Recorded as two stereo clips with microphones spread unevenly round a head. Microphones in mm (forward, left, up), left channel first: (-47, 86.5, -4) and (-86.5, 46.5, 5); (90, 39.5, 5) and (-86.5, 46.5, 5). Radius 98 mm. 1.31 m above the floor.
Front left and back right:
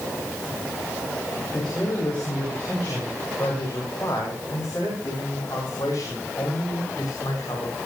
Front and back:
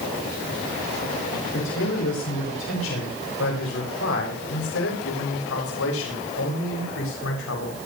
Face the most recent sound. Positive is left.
turn(degrees=-10)